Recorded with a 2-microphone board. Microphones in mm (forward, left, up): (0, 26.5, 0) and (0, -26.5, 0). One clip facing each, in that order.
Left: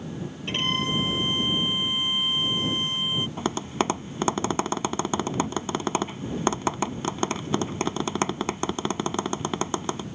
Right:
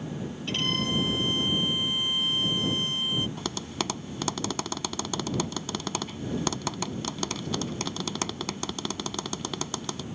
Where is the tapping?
25° left (ahead or behind).